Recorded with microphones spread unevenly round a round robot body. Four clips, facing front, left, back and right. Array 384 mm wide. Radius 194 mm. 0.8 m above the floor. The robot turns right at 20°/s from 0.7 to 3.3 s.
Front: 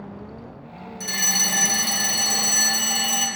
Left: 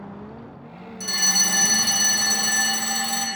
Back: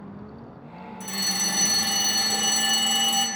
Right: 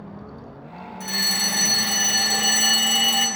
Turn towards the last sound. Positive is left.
turn(degrees=180)